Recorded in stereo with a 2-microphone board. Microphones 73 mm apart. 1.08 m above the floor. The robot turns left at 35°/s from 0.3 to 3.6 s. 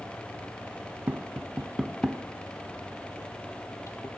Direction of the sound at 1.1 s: 25° right (ahead or behind).